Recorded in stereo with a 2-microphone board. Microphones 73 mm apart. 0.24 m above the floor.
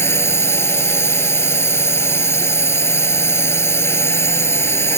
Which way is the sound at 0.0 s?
35° left (ahead or behind).